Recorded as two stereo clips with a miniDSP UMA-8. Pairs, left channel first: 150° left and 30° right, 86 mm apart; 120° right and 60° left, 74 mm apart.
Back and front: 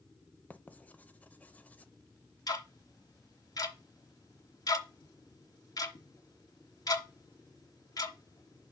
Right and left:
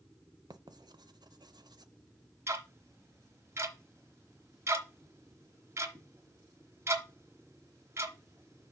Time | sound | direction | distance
0.5 | writing | 80° left | 0.5 m
2.5 | ticking | 110° left | 1.1 m